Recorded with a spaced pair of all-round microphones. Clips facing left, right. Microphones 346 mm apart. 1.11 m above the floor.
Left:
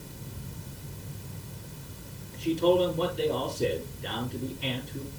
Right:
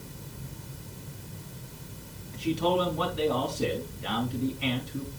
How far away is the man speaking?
About 3 m.